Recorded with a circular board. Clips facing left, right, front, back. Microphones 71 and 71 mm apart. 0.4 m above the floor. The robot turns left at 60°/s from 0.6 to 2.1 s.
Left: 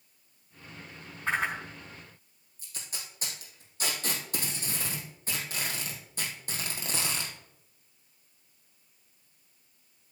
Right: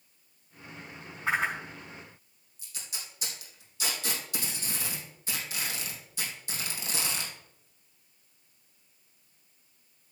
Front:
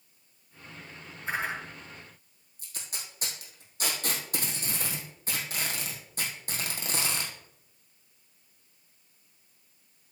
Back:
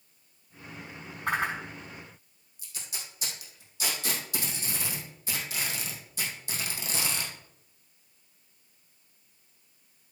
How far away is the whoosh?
About 3.5 m.